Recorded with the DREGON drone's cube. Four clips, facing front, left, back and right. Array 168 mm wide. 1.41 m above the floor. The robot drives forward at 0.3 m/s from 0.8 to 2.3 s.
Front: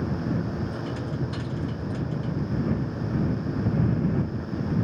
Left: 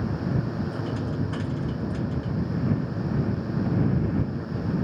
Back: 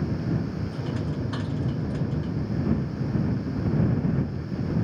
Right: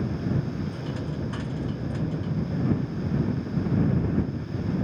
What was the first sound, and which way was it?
Only background noise.